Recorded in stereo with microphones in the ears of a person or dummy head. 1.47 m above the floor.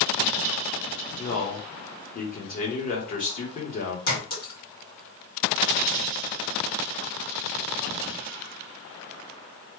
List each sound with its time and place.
1.2 s a man speaking: 40° left (ahead or behind), 1.1 m
4.1 s a clink: 45° left (ahead or behind), 1.9 m